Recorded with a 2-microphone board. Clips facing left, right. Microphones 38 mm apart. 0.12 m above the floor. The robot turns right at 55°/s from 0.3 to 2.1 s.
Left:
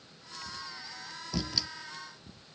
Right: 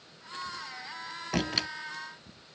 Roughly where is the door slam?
Right.